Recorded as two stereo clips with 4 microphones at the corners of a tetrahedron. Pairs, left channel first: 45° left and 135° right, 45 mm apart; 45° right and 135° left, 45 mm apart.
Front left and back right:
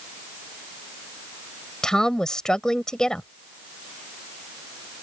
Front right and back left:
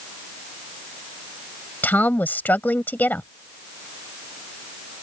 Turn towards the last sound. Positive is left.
turn(degrees=-25)